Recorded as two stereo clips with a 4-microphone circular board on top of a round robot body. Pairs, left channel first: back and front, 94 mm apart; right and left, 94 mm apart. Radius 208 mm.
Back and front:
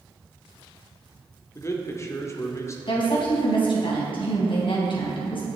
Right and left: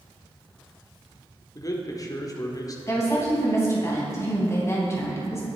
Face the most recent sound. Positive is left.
turn(degrees=-150)